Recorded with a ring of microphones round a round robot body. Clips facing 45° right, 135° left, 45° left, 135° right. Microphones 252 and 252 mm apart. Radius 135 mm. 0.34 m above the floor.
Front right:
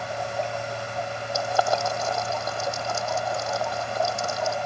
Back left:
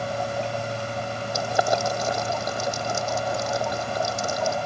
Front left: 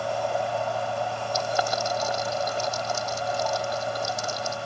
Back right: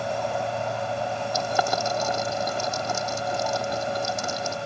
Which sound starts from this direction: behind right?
Boiling, at 1.3 s.